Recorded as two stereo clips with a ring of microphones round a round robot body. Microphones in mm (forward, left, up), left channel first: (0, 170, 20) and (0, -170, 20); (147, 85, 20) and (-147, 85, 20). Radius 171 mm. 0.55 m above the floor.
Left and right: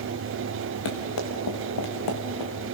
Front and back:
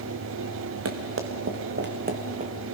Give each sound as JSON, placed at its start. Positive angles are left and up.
{"t": 0.8, "sound": "running footsteps", "azimuth_deg": 140, "distance_m": 3.0}